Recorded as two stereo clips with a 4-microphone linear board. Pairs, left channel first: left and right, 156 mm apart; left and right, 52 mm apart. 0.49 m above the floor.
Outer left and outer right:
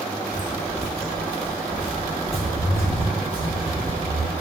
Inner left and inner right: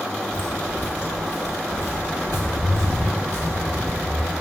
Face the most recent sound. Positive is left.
turn(degrees=35)  # may be behind; listen again after turning